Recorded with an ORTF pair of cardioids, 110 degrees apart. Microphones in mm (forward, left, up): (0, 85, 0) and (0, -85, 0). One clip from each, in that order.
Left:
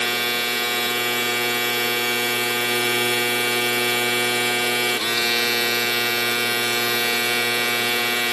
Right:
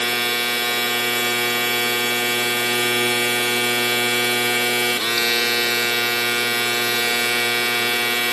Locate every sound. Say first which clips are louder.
0.0 s a machine running: right 1 dB; 10° right